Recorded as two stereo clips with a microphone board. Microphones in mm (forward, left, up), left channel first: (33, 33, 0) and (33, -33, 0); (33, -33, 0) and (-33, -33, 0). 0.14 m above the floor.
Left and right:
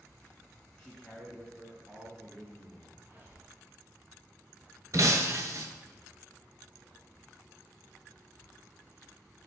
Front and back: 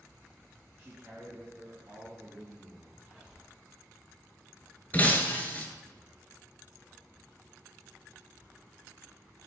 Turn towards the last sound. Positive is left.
turn(degrees=-65)